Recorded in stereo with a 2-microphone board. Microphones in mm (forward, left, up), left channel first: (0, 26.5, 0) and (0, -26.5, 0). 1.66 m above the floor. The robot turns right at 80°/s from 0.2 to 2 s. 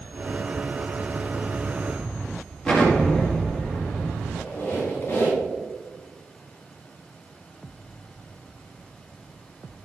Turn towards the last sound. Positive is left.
turn(degrees=40)  # may be behind; listen again after turning